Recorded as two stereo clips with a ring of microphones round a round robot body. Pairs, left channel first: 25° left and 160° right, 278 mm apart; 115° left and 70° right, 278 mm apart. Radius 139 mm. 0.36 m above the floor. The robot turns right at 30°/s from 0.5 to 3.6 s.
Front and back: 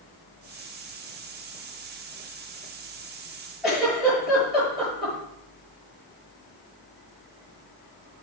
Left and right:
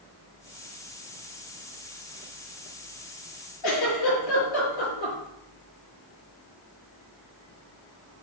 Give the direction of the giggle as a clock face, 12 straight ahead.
8 o'clock.